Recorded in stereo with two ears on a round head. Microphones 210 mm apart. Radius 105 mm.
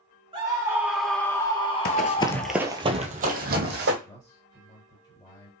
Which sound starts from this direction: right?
A scream, at 0.3 s.